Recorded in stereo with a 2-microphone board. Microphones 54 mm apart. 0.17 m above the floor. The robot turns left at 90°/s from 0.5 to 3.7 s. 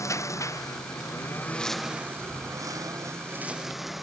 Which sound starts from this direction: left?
A lawn mower, at 0.0 s.